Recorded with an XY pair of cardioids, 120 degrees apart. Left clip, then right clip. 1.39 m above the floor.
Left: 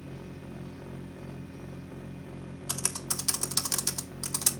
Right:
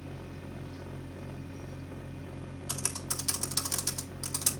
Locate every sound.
0.0 s a machine running: straight ahead, 1.1 m
2.7 s typing on a keyboard: 25° left, 1.7 m